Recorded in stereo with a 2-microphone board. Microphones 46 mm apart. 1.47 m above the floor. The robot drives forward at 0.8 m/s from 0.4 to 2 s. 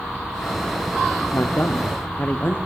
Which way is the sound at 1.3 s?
65° left (ahead or behind).